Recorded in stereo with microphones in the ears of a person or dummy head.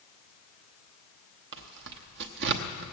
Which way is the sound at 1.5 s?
65° right (ahead or behind).